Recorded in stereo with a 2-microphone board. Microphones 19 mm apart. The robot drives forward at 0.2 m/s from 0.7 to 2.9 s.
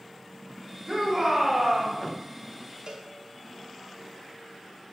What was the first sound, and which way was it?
A shout, 40° right (ahead or behind).